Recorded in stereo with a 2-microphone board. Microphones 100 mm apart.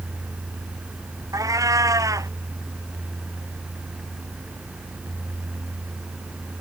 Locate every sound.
1.3 s a cat meowing: 35° right (ahead or behind)